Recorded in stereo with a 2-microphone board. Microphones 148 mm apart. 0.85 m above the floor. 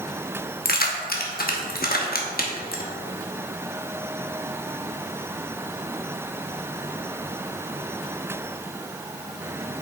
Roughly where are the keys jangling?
Left.